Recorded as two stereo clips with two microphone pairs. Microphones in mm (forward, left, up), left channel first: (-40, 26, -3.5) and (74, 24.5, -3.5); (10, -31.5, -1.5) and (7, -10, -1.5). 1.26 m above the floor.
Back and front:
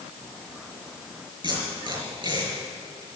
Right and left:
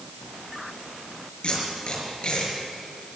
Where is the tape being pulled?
45° right, 5.5 m.